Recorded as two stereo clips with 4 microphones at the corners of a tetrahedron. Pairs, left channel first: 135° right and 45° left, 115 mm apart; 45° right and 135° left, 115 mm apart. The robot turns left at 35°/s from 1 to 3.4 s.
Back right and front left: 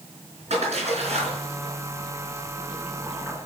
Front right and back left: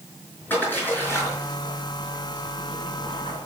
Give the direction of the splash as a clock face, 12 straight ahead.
11 o'clock.